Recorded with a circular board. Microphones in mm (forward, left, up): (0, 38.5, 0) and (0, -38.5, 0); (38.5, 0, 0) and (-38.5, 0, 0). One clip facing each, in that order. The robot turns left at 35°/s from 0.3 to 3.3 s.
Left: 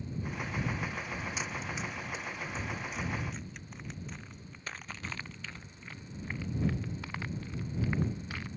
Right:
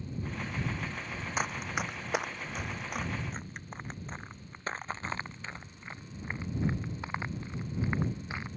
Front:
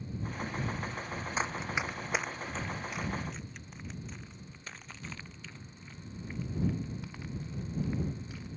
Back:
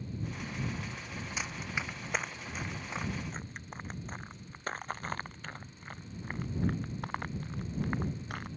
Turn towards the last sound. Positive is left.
turn(degrees=-155)